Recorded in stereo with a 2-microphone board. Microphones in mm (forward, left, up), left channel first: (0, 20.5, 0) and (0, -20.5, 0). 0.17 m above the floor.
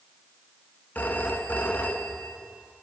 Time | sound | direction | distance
0.9 | a phone ringing | 45° left (ahead or behind) | 0.8 m